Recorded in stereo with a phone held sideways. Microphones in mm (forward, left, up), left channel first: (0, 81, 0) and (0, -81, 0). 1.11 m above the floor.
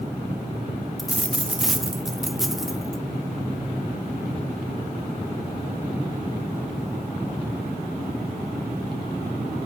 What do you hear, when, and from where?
1.0 s a dropped coin: centre (ahead or behind), 0.5 m